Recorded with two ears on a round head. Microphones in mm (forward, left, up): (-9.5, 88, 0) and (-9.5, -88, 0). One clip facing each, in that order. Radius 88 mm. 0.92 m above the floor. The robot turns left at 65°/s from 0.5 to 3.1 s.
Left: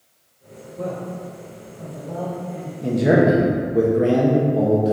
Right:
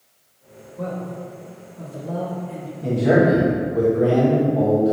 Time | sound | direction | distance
0.8 | a man speaking | 10° left (ahead or behind) | 1.8 m
2.8 | a man speaking | 15° left (ahead or behind) | 1.1 m